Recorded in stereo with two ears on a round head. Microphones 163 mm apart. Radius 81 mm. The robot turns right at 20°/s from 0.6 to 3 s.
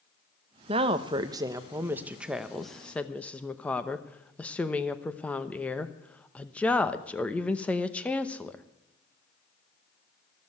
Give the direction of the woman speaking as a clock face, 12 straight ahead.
1 o'clock.